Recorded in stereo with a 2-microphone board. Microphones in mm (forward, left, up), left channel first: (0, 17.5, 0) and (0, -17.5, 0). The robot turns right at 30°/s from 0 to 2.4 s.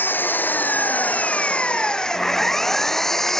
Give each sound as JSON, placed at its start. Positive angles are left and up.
{"t": 0.0, "sound": "an engine running", "azimuth_deg": 95}